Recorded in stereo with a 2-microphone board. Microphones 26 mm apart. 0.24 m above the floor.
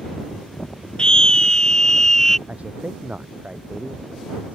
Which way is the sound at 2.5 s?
65° right (ahead or behind).